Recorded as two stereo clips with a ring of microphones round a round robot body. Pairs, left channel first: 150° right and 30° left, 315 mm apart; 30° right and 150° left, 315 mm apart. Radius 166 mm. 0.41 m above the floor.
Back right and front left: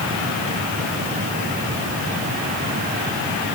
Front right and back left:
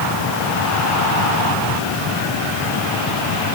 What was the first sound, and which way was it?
Only background noise.